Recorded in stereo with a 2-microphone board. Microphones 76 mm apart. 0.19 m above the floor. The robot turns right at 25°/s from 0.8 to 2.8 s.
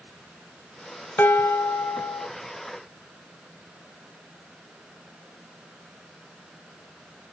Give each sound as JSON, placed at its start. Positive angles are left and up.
{"t": 1.2, "sound": "dishes clattering", "side_deg": 20, "distance_m": 1.1}